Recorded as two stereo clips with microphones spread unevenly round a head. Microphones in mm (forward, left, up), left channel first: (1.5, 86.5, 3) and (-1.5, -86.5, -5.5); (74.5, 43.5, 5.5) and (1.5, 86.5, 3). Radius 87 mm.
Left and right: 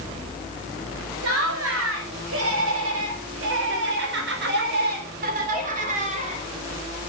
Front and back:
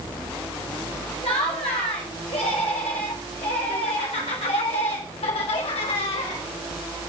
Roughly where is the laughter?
Right.